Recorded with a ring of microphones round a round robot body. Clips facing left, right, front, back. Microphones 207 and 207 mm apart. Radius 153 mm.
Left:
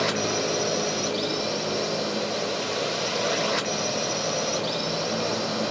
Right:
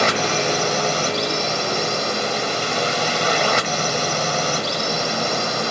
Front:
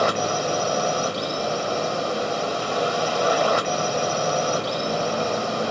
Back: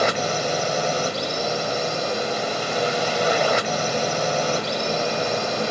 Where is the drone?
105° right.